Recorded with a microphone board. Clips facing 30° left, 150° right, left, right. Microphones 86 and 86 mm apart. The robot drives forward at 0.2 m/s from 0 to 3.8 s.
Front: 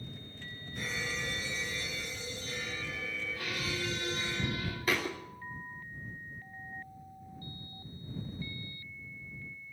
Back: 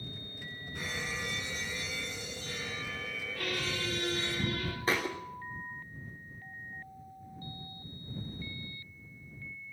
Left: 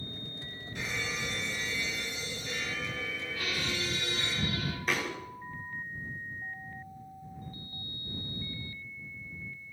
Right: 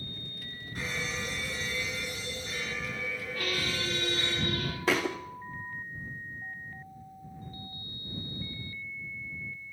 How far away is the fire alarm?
About 7.5 m.